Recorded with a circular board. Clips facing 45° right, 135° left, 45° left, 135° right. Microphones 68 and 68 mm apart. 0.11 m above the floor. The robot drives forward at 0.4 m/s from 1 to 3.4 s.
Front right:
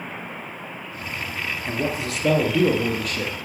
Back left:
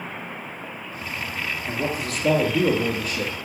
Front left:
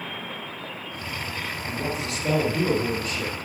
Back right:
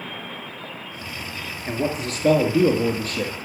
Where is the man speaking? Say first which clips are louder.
Front right 2 dB, back right 6 dB; 100° right, 1.3 m; by 3.4 s 135° right, 1.6 m.